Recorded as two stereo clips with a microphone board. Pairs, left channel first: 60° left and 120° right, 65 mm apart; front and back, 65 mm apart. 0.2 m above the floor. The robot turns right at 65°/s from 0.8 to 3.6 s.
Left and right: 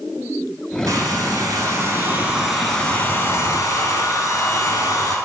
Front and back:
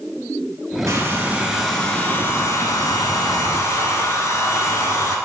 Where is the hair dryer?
140° right, 0.6 m; by 5.2 s 35° left, 0.6 m.